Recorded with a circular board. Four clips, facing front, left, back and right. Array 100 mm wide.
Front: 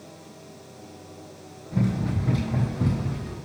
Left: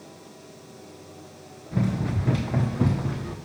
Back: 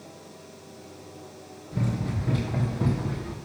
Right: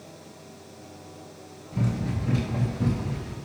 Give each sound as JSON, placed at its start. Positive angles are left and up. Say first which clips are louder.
{"t": 1.7, "sound": "running footsteps", "louder": "left 2 dB, front 4 dB", "azimuth_deg": 75, "distance_m": 1.6}